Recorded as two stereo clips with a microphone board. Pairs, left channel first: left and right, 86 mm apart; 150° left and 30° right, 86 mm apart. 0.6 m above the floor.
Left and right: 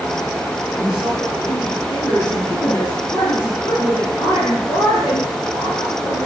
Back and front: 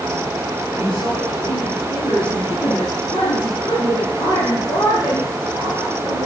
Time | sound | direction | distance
0.7 | a woman speaking | 135° left | 7.5 m